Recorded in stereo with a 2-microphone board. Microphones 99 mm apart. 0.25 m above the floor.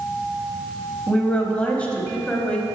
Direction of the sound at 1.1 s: 15° left (ahead or behind).